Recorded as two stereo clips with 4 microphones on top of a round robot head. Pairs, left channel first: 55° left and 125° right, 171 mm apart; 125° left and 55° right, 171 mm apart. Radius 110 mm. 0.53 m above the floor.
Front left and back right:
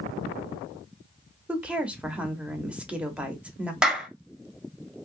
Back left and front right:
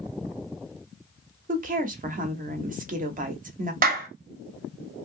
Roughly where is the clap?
Ahead right.